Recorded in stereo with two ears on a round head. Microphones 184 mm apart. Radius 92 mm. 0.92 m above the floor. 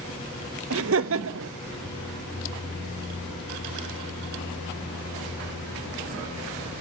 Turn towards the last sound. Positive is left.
turn(degrees=-65)  # may be behind; listen again after turning